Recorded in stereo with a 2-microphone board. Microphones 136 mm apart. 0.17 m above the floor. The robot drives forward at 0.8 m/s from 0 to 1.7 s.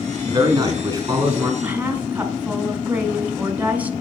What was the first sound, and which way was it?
A man speaking, 35° right (ahead or behind).